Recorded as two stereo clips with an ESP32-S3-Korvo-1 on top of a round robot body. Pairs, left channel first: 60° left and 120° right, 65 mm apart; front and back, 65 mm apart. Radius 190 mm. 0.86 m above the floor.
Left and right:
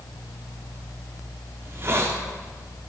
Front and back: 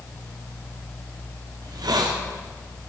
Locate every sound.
1.6 s a hiss: 170° right, 1.6 m